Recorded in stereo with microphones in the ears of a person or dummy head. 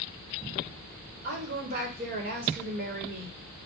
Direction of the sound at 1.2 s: 45° right (ahead or behind).